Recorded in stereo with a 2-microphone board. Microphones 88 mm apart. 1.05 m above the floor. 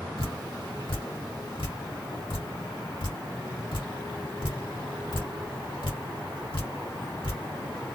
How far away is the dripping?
About 2.5 m.